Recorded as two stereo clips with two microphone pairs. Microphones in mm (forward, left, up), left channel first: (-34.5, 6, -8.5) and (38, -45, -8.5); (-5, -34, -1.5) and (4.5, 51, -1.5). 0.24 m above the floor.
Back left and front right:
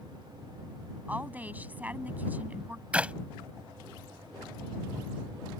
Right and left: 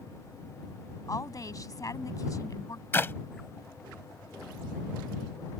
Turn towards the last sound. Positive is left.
turn(degrees=-90)